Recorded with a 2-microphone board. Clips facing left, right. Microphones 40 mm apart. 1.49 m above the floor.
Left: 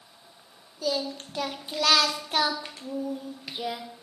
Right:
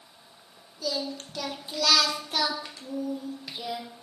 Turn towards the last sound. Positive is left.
turn(degrees=25)  # may be behind; listen again after turning